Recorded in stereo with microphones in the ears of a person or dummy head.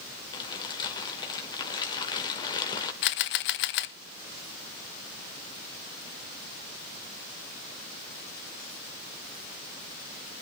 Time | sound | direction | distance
0.3 | crumpling | 30° left (ahead or behind) | 2 m
3.0 | a camera shutter | 65° left (ahead or behind) | 0.8 m